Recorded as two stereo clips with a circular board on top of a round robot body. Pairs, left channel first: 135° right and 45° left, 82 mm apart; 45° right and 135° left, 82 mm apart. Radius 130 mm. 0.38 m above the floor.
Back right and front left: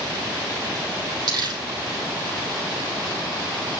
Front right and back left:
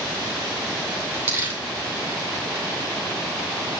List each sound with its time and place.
1.3 s crumpling: 75° left, 6.5 m